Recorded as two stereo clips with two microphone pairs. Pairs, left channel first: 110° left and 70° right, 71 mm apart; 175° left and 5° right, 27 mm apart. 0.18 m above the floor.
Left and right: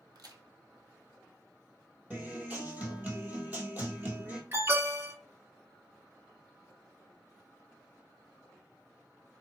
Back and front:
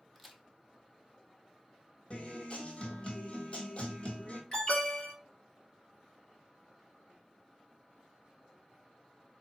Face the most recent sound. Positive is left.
turn(degrees=-115)